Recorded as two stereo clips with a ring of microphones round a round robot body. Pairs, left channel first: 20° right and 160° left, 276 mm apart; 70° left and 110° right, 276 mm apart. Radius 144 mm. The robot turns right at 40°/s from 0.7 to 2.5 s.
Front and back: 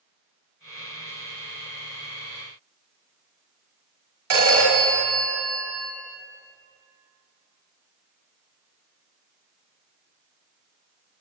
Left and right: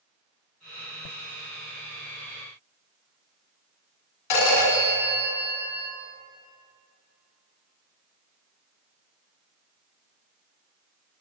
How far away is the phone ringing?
About 1.5 m.